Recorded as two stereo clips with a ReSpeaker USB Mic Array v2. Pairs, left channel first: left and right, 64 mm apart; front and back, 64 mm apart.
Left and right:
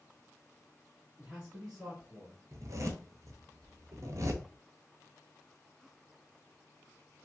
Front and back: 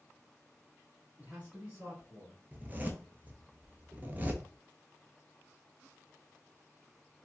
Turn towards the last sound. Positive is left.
turn(degrees=-120)